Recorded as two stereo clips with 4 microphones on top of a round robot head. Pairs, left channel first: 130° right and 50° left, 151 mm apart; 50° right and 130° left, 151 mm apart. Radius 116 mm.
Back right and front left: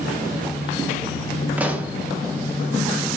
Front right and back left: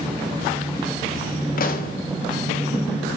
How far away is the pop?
About 1.8 m.